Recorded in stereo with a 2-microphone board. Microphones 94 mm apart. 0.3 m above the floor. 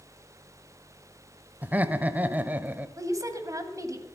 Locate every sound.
1.6 s laughter: 20° right (ahead or behind), 1.0 m
3.0 s a woman speaking: 35° right (ahead or behind), 2 m